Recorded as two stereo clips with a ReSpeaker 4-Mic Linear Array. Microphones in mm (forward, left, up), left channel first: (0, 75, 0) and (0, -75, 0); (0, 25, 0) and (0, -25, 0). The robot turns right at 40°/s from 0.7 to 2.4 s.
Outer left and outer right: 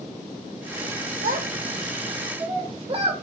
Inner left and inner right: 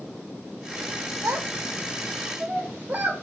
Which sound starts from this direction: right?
A child speaking, at 1.2 s.